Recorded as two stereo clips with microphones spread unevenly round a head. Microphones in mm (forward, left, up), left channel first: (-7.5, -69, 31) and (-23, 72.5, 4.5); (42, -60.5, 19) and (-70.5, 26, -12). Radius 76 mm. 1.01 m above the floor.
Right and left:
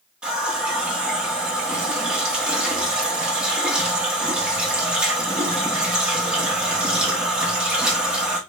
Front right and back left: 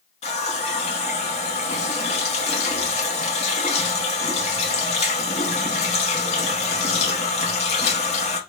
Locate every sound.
0.2 s a running tap: 10° left, 0.6 m